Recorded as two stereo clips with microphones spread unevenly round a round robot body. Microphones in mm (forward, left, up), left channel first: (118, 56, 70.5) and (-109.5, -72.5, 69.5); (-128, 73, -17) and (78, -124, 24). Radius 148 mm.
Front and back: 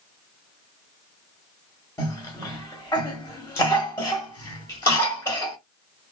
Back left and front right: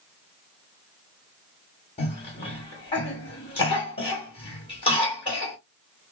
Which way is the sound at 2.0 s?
100° left.